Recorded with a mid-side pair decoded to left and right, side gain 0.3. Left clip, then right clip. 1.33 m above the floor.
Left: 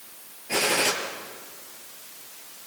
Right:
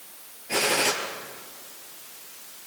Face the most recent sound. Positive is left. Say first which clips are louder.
# even
turn(degrees=10)